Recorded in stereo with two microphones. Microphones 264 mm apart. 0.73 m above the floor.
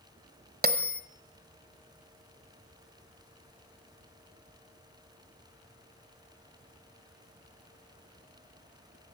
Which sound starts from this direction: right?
A bell, at 0.6 s.